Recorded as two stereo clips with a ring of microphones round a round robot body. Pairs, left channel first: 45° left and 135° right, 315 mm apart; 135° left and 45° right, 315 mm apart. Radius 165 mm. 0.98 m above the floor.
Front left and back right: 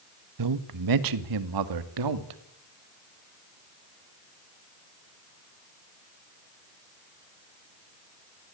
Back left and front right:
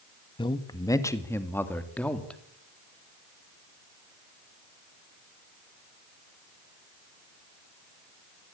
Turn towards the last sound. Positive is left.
turn(degrees=-140)